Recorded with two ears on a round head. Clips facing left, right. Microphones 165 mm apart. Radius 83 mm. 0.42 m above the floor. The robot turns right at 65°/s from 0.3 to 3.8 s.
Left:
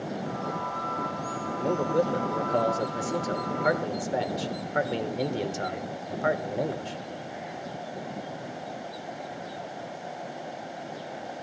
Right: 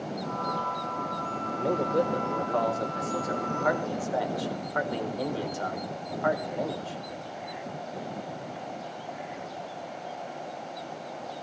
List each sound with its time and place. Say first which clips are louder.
1.6 s a man speaking: left 1 dB; 15° right, 1.2 m; by 7.0 s 125° left, 1.2 m